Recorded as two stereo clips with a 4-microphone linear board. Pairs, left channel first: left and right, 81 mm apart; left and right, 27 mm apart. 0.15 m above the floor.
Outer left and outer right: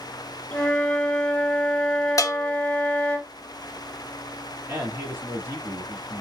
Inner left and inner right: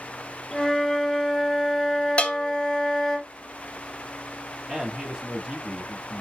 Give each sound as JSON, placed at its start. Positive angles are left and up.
{"t": 0.5, "sound": "a flute", "side_deg": 15, "distance_m": 1.0}
{"t": 2.2, "sound": "a bell", "side_deg": 45, "distance_m": 0.6}
{"t": 4.7, "sound": "a man speaking", "side_deg": -25, "distance_m": 1.2}